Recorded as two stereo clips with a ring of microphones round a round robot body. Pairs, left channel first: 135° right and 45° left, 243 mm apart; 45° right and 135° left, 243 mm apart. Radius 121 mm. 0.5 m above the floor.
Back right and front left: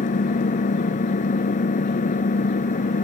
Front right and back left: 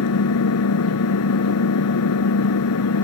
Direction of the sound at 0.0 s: 75° right.